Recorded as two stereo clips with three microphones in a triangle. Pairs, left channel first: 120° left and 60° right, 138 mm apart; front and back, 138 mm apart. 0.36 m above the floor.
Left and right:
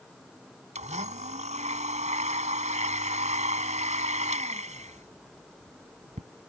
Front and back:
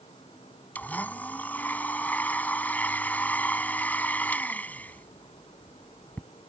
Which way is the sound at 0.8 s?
75° right.